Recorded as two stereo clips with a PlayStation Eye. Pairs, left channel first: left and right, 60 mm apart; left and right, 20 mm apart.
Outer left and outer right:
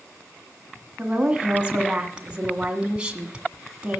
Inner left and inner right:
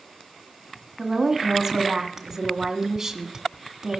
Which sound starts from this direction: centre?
A woman speaking, at 1.0 s.